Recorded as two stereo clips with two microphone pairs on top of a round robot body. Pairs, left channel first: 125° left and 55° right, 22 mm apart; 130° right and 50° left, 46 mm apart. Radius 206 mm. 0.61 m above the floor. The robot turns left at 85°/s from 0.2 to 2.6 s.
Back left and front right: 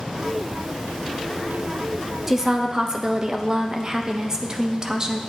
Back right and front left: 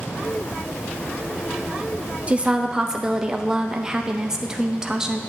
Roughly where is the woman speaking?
Ahead.